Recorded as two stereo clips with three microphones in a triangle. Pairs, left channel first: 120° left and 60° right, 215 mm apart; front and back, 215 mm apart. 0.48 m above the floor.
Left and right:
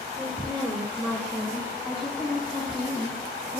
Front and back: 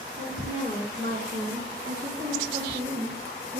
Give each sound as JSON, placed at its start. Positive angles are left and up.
{"t": 0.2, "sound": "a woman speaking", "azimuth_deg": -145, "distance_m": 5.0}